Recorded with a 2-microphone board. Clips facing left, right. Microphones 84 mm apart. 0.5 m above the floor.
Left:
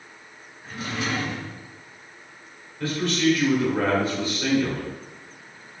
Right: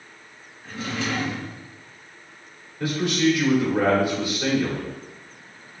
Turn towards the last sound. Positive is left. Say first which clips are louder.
# right 1 dB
turn(degrees=-20)  # may be behind; listen again after turning